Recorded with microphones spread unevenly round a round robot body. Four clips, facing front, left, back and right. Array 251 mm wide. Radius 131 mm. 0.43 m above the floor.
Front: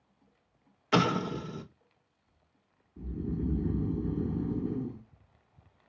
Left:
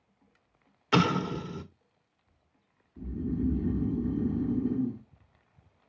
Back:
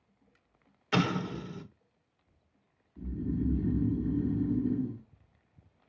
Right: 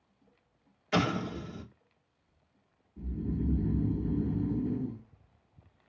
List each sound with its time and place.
0.9 s an explosion: 65° left, 1.4 m
3.0 s snoring: 35° left, 1.3 m